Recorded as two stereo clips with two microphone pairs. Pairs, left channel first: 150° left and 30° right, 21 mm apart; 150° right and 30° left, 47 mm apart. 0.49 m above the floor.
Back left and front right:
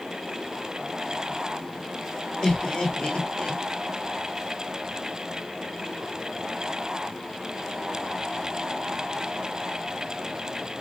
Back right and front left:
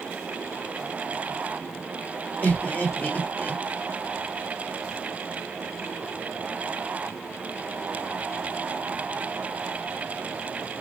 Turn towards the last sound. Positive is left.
turn(degrees=165)